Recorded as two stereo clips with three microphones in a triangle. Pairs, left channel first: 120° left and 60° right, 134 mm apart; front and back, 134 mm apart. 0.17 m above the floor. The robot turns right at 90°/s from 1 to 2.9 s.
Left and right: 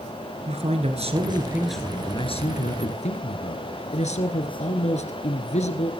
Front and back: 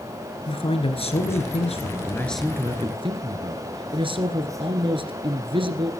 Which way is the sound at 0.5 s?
35° right.